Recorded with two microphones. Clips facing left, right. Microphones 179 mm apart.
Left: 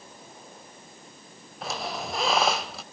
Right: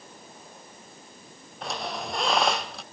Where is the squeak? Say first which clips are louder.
Even; centre (ahead or behind), 0.7 m.